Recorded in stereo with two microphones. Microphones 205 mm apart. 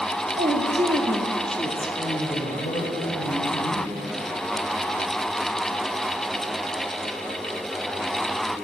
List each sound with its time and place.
0.4 s a woman speaking: 45° right (ahead or behind), 1.7 m; by 3.9 s 50° left (ahead or behind), 4 m